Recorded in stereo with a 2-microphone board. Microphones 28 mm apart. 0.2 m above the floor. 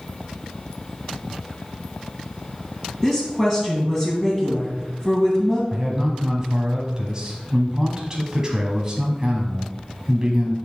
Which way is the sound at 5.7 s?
20° right (ahead or behind).